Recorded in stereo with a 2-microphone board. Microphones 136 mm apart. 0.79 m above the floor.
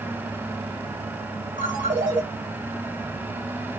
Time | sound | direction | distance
1.6 | a ringtone | 80° right | 3 m